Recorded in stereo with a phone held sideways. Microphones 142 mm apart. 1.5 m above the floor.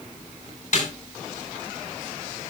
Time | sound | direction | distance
0.7 | a snare drum | 65° left (ahead or behind) | 6 m